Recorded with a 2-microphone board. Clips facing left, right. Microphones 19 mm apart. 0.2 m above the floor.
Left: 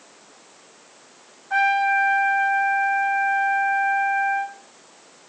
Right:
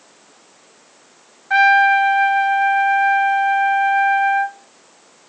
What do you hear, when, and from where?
1.5 s a trumpet: 75° right (ahead or behind), 0.6 m